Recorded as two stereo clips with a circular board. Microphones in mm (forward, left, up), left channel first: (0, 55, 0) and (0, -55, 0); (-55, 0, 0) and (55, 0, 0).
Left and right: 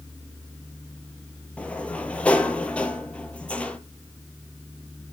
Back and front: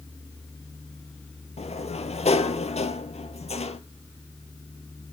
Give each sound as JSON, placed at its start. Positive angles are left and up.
{"t": 1.6, "sound": "a sliding door", "azimuth_deg": 170, "distance_m": 0.8}